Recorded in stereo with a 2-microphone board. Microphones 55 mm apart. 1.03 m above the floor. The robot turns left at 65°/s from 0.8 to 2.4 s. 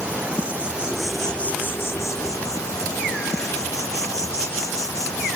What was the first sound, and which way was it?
An insect, 160° right.